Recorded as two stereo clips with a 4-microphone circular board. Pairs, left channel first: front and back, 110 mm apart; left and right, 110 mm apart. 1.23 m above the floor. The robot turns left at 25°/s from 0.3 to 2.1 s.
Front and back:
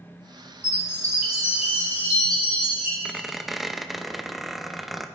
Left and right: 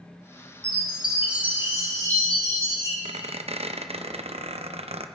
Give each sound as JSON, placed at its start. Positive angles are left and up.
{"t": 0.6, "sound": "a chime", "azimuth_deg": 5, "distance_m": 3.5}
{"t": 3.0, "sound": "a squeak", "azimuth_deg": -90, "distance_m": 0.7}